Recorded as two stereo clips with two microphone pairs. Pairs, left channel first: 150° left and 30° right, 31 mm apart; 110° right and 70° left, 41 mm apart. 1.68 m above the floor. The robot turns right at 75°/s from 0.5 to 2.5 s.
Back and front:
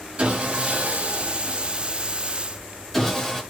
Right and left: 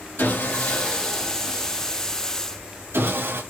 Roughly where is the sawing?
Right.